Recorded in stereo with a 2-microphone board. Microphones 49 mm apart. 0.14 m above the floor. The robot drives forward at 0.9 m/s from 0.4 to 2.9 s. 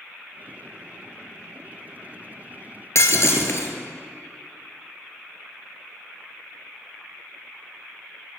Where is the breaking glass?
60° left (ahead or behind), 1.3 m.